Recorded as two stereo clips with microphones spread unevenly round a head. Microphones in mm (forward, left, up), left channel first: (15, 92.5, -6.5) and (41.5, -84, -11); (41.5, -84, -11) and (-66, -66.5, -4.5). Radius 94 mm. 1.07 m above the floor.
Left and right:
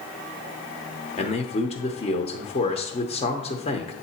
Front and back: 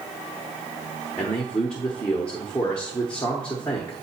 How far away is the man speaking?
About 0.8 m.